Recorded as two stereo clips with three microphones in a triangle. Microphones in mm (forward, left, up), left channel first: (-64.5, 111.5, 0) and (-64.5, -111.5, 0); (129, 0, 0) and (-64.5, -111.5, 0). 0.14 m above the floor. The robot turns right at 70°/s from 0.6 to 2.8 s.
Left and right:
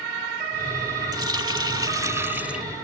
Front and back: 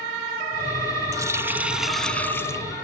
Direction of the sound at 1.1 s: 115° right.